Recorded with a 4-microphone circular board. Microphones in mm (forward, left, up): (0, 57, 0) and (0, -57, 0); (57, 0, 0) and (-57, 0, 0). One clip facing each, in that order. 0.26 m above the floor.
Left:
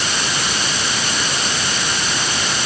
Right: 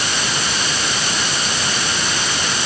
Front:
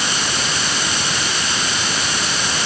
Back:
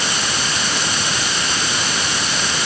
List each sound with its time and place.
Only background noise.